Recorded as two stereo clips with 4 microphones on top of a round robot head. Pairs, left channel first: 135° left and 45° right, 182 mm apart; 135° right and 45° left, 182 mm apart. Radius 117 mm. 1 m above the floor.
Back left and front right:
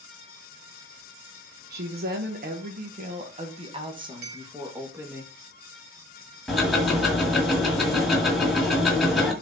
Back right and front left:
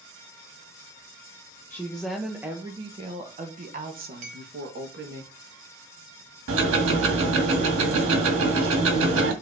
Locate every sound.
1.7 s a woman speaking: 60° right, 1.3 m; by 5.2 s 35° left, 2 m
4.2 s a clink: 10° right, 1.3 m
6.5 s ticking: 45° left, 1.9 m